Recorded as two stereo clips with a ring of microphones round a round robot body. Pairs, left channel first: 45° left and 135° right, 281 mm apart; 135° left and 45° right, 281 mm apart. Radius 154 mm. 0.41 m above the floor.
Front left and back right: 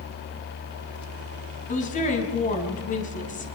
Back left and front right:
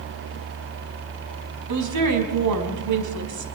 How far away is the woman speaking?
About 4.5 m.